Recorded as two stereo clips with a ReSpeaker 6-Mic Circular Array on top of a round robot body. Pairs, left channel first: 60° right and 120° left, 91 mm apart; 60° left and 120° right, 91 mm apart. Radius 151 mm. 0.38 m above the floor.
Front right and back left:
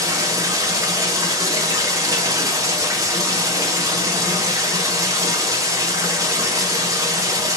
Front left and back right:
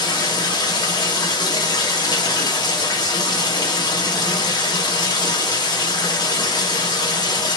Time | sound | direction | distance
0.0 | running water | 80° left | 1.0 m